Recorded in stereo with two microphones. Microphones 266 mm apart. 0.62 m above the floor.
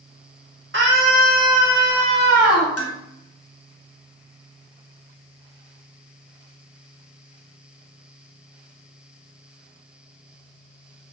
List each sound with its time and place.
0.7 s a scream: 45° right (ahead or behind), 1.3 m; by 2.7 s centre (ahead or behind), 1.1 m
2.8 s dishes clattering: 60° left (ahead or behind), 0.5 m